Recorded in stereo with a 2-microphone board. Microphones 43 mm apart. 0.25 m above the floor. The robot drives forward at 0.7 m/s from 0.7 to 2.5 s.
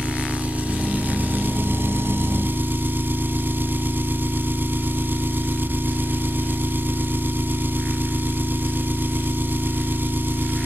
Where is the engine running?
35° right (ahead or behind), 1.2 m; by 10.7 s 55° right (ahead or behind), 0.8 m.